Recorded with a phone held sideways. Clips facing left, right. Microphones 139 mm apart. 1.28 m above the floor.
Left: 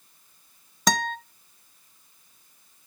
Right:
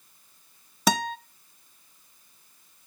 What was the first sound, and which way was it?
A guitar, 5° right (ahead or behind).